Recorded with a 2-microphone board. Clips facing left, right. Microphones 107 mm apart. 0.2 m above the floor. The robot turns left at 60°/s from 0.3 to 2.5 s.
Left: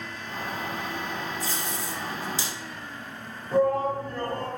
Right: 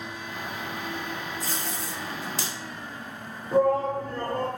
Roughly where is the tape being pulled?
Right.